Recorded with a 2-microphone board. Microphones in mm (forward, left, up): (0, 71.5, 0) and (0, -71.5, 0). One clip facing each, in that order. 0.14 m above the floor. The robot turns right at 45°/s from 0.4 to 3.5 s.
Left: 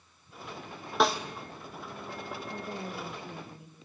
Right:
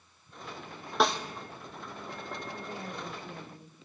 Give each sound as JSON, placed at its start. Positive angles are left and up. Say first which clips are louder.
{"t": 1.0, "sound": "a snare drum", "louder": "left 1 dB", "side_deg": 0, "distance_m": 1.3}
{"t": 2.5, "sound": "a woman speaking", "louder": "left 2 dB", "azimuth_deg": 125, "distance_m": 2.5}